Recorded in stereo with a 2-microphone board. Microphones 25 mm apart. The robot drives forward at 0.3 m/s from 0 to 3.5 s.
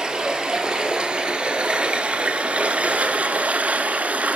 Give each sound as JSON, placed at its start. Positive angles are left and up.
{"t": 0.0, "sound": "running water", "side_deg": -30, "distance_m": 1.5}